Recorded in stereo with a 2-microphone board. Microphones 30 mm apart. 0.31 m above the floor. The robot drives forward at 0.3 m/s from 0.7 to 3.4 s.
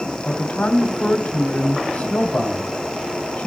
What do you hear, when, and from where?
0.2 s a man speaking: 50° left (ahead or behind), 1.7 m